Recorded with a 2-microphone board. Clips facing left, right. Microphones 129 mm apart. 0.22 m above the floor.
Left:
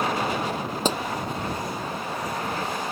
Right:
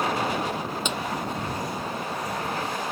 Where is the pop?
35° left (ahead or behind).